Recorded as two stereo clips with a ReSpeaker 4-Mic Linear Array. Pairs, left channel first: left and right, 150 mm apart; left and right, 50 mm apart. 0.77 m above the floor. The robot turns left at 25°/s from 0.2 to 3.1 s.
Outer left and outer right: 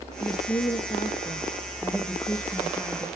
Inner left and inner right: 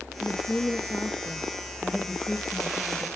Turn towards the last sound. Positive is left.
turn(degrees=10)